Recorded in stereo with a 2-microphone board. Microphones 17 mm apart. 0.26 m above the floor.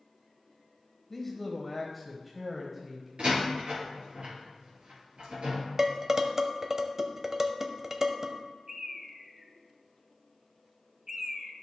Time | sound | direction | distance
1.1 | a man speaking | 15° left (ahead or behind) | 1.4 m
3.2 | a door slam | 75° right (ahead or behind) | 3.5 m
5.8 | dishes clattering | 20° right (ahead or behind) | 0.7 m
8.7 | a bird | 30° right (ahead or behind) | 1.1 m